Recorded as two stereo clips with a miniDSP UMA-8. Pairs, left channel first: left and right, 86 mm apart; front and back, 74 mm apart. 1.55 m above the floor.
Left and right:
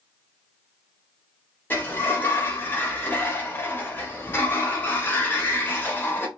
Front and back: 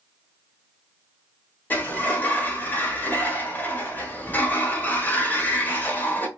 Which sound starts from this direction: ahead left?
A sliding door, at 1.7 s.